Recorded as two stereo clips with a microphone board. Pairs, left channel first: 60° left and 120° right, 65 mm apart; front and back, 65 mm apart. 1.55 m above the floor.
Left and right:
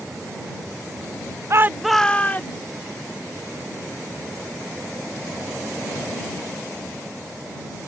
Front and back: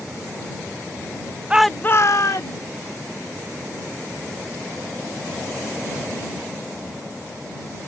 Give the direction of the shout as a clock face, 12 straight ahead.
4 o'clock.